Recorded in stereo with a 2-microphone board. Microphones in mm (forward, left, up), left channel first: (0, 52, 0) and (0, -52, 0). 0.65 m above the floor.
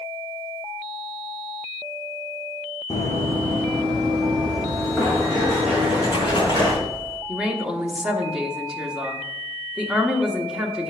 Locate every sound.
2.9 s running footsteps: 30° left (ahead or behind), 1.2 m; by 6.7 s 10° right (ahead or behind), 3.5 m
5.7 s a splash: 45° left (ahead or behind), 3 m
7.3 s a woman speaking: 10° right (ahead or behind), 1.1 m